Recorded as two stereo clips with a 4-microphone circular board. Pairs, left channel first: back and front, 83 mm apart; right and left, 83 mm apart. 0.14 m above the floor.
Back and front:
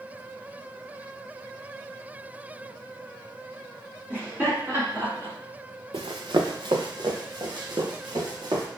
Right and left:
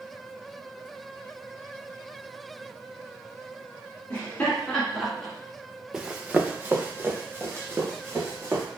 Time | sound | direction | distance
4.1 | laughter | 40° right | 1.7 m
5.9 | running footsteps | 10° left | 0.6 m